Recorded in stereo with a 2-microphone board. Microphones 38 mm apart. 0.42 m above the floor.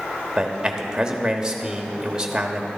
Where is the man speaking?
15° right (ahead or behind), 1.1 m.